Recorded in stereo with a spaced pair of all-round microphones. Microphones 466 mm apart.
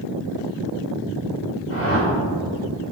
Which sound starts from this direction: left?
A whoosh, at 1.7 s.